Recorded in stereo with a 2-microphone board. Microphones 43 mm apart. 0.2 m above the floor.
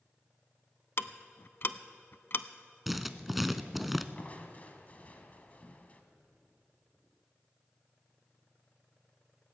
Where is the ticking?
55° left (ahead or behind), 0.5 m.